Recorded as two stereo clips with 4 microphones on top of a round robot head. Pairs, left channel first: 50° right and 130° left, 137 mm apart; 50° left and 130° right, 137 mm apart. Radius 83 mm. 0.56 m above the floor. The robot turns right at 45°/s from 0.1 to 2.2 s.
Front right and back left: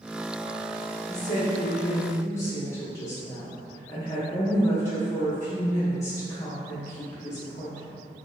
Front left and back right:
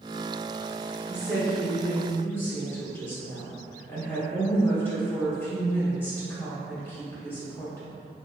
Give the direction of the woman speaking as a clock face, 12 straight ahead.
2 o'clock.